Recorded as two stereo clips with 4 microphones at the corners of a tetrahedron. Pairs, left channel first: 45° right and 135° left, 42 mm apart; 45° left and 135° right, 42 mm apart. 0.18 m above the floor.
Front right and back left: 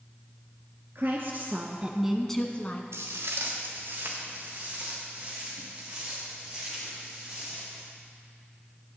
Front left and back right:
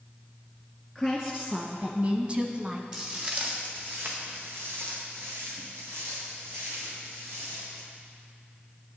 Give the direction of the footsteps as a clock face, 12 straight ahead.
7 o'clock.